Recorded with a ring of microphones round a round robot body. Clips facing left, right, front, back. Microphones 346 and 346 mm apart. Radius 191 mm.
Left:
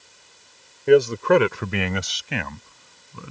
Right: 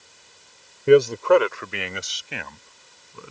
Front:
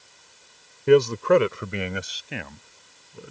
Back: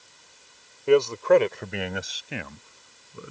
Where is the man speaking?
25° right; by 3.3 s 95° left.